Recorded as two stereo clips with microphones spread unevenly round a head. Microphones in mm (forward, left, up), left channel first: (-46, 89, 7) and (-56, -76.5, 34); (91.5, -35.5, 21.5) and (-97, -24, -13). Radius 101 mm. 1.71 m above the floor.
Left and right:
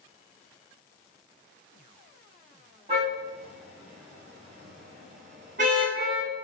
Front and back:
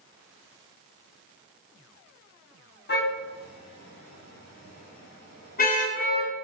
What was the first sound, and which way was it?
A car horn, 30° right.